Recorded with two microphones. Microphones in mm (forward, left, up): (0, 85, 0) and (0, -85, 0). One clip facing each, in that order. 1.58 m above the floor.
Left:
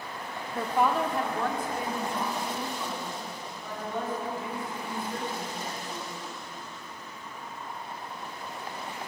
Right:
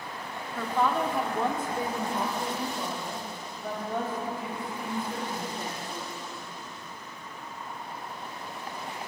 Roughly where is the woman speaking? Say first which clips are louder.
Left 1 dB; left.